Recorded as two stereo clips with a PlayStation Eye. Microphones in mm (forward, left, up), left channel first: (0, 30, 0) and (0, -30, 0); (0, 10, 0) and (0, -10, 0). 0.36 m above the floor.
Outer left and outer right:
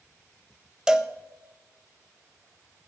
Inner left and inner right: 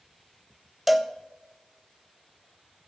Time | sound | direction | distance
0.9 | a cowbell | 10° right (ahead or behind) | 0.7 m